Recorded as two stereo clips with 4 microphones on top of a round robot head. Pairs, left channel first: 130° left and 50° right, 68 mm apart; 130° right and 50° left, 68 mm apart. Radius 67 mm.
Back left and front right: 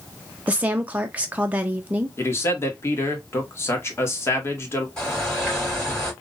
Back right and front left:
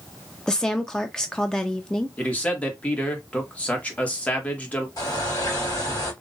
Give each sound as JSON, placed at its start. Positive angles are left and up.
{"t": 0.5, "sound": "a woman speaking", "azimuth_deg": -65, "distance_m": 0.6}
{"t": 2.2, "sound": "a man speaking", "azimuth_deg": 165, "distance_m": 1.5}
{"t": 5.0, "sound": "a bird", "azimuth_deg": -155, "distance_m": 2.5}